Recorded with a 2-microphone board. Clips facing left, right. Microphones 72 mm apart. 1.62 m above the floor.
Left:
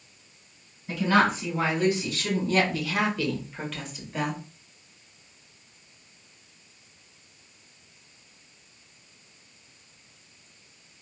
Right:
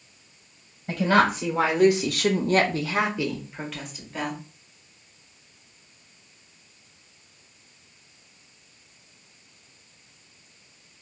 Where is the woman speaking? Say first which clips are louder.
Right 2 dB; 65° right (ahead or behind), 1.1 m; by 4.4 s 5° left (ahead or behind), 1.3 m.